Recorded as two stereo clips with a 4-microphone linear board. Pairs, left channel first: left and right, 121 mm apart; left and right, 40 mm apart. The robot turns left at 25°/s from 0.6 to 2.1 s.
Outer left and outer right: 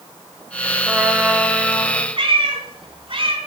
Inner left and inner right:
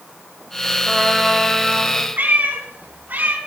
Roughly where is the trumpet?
Behind.